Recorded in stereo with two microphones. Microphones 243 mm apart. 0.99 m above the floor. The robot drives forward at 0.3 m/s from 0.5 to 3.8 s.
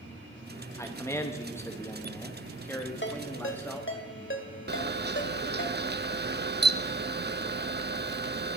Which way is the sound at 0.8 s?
10° left (ahead or behind).